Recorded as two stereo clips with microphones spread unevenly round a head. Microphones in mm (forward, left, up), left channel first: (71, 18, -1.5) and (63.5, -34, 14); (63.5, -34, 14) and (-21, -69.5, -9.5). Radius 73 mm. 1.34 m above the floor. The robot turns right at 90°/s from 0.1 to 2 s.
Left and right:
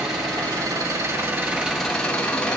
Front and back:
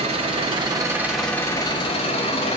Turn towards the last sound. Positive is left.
turn(degrees=5)